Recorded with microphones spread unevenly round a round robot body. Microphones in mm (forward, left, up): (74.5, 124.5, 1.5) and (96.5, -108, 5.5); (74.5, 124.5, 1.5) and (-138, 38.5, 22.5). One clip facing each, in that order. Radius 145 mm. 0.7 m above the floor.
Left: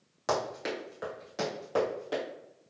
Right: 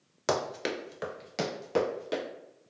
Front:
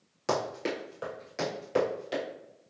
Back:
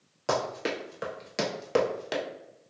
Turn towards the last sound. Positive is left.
turn(degrees=-155)